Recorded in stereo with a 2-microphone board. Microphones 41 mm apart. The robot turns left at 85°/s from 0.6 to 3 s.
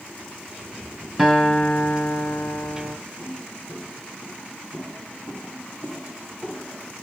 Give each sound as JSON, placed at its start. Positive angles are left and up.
{"t": 1.2, "sound": "a guitar", "azimuth_deg": -160, "distance_m": 2.0}
{"t": 3.2, "sound": "footsteps", "side_deg": 70, "distance_m": 3.5}